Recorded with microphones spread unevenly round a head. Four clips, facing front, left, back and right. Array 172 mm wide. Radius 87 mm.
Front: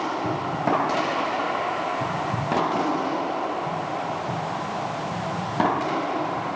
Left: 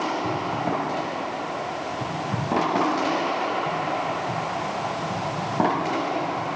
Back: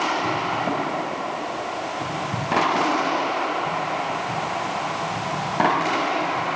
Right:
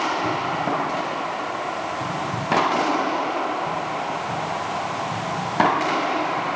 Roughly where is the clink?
No clink in this recording.